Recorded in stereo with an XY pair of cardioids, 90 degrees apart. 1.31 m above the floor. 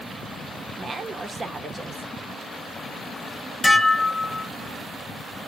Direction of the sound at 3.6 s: 20° left.